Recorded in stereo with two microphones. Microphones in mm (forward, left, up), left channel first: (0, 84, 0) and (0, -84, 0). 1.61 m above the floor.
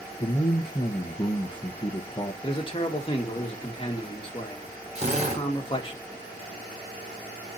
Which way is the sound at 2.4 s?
30° left (ahead or behind).